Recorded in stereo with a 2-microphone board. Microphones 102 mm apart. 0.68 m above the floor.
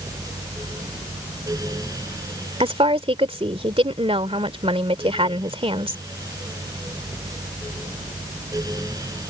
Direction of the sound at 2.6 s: 70° right (ahead or behind).